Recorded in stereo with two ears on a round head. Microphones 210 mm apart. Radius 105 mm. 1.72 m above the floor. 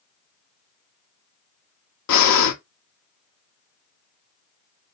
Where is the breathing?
85° left, 0.7 m.